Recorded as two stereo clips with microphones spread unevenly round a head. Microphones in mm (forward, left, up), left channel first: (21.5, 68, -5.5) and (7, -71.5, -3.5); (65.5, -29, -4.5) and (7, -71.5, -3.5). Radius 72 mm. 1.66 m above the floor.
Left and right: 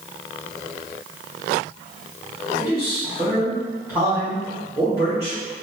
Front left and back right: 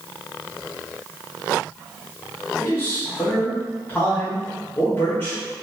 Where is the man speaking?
25° right, 1.5 m.